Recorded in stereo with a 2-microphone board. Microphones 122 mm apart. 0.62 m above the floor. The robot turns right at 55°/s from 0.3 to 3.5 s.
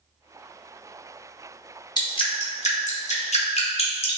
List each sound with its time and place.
2.0 s dripping: 35° left (ahead or behind), 0.6 m; by 4.2 s 55° left (ahead or behind), 0.6 m